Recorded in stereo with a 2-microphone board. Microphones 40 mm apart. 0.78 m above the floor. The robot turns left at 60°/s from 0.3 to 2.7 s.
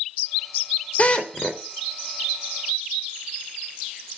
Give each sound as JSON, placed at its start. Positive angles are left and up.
{"t": 1.0, "sound": "a drill", "azimuth_deg": 40, "distance_m": 2.5}